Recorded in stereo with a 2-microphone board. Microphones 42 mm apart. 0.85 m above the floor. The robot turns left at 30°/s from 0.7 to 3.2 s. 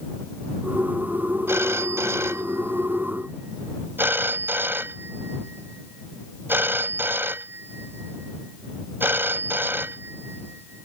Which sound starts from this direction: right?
A phone ringing, at 1.5 s.